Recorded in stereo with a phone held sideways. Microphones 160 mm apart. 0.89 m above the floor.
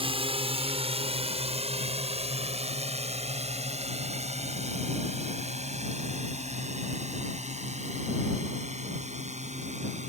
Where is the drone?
35° right (ahead or behind); by 10.1 s 45° right (ahead or behind).